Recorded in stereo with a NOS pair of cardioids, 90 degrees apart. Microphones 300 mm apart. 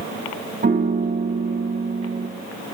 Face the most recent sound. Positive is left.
turn(degrees=-30)